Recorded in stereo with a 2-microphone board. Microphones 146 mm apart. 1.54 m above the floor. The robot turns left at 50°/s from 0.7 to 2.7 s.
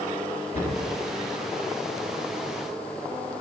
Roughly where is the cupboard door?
Left.